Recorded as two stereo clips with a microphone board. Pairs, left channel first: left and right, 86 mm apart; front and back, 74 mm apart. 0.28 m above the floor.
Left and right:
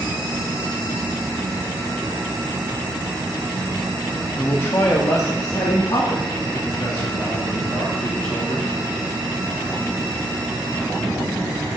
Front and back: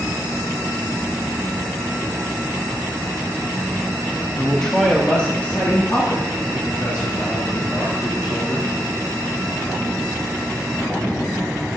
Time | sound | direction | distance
4.4 | a man speaking | 85° left | 1.0 m